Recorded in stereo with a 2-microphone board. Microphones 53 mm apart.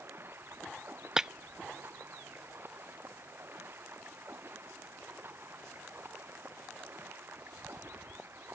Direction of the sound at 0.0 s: 45° right (ahead or behind).